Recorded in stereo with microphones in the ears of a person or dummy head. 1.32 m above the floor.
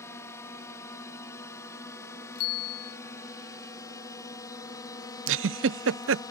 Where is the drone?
10° left (ahead or behind); by 6.3 s 15° left (ahead or behind).